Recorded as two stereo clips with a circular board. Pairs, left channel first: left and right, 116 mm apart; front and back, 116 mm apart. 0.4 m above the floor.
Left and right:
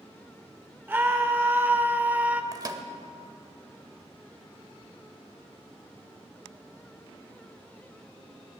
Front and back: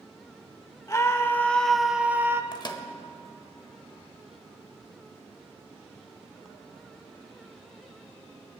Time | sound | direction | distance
0.9 | a scream | 35° right | 0.9 m
2.5 | a microwave | 40° right | 1.0 m